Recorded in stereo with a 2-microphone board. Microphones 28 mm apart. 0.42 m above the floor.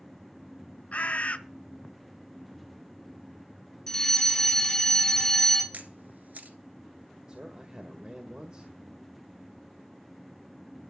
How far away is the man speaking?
About 1.6 m.